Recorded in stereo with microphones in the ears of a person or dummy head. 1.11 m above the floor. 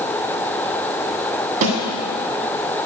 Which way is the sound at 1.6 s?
60° right (ahead or behind).